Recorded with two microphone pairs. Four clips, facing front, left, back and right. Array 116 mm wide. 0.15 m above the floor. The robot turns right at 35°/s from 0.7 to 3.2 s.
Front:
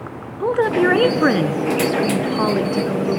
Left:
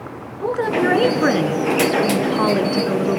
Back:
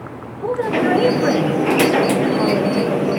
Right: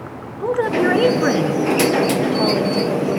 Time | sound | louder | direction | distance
0.4 | a woman speaking | right 1 dB, front 2 dB | 5° right | 1.8 m